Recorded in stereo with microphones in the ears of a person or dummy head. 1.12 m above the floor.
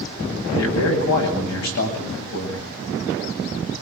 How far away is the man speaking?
About 9 m.